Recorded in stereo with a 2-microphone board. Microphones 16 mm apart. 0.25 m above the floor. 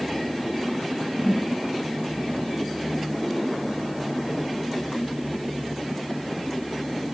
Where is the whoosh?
5° left (ahead or behind), 5.5 m.